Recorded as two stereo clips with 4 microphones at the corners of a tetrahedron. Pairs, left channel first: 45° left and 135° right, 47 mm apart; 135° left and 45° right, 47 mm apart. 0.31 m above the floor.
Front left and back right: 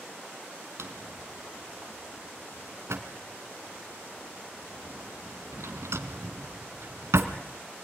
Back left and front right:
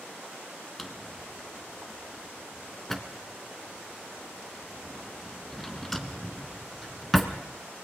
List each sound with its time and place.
0.8 s a drawer: 140° right, 1.8 m